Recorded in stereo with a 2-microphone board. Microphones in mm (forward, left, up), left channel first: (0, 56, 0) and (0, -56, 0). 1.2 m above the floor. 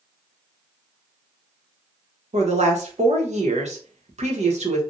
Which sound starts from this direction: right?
A woman speaking, at 2.3 s.